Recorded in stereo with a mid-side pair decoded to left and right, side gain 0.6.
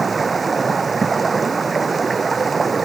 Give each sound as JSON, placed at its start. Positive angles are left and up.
{"t": 0.0, "sound": "running water", "azimuth_deg": -25}